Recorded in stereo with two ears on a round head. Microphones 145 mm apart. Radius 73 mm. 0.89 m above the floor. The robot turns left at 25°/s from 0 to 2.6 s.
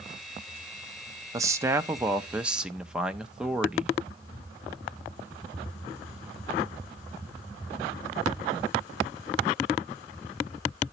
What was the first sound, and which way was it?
A man speaking, 140° right.